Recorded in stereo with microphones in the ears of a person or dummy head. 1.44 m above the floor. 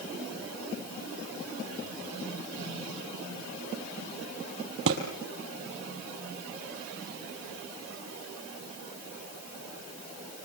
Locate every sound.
4.9 s a thud: 65° right (ahead or behind), 4 m